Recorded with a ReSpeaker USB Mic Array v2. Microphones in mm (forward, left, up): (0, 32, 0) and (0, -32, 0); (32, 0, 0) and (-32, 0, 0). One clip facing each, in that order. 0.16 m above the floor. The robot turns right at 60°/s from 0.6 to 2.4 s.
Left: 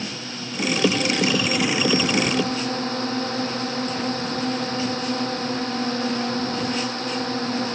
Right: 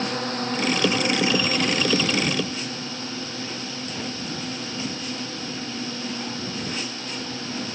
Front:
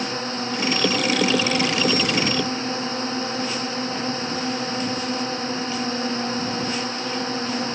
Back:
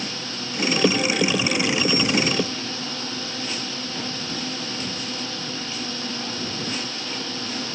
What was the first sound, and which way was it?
A drone, 55° right.